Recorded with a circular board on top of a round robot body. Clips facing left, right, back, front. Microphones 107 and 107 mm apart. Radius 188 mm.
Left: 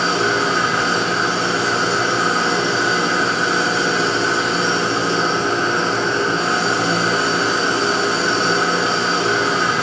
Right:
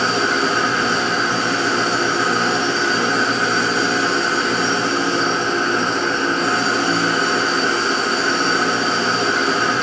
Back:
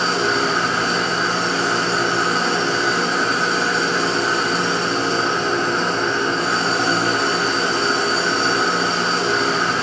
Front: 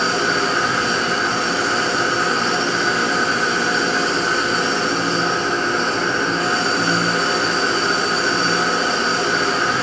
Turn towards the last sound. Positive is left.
turn(degrees=90)